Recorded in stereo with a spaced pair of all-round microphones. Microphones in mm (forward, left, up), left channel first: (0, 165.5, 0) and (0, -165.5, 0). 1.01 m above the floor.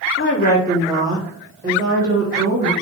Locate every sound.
0.2 s a woman speaking: 40° left (ahead or behind), 0.5 m; by 2.7 s 45° right (ahead or behind), 1.3 m